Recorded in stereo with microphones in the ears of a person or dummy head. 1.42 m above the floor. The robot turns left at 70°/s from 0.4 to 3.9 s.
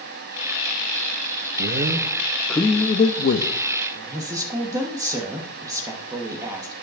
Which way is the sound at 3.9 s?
20° right (ahead or behind).